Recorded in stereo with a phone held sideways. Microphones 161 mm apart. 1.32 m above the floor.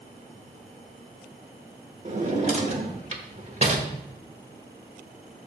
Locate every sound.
2.0 s a drawer: 40° right (ahead or behind), 1.2 m